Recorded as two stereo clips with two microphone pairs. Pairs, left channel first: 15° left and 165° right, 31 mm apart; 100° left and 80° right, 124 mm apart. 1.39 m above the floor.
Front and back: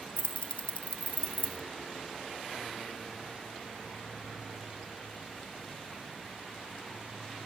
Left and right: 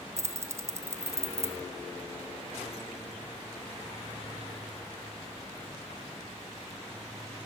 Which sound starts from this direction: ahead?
Keys jangling, at 0.2 s.